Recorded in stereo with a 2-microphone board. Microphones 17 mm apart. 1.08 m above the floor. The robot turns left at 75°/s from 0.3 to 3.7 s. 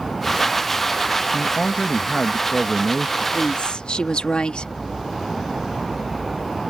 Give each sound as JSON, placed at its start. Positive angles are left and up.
{"t": 1.3, "sound": "a man speaking", "azimuth_deg": 110}
{"t": 3.3, "sound": "a woman speaking", "side_deg": 70}